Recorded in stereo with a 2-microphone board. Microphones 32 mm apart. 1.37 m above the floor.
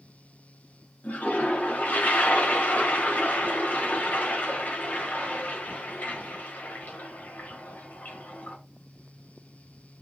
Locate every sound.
1.0 s a toilet flushing: 65° left (ahead or behind), 2 m